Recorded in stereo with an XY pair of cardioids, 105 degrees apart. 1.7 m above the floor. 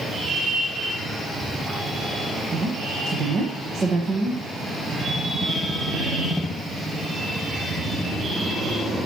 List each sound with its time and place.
2.5 s a woman speaking: 55° right, 1.7 m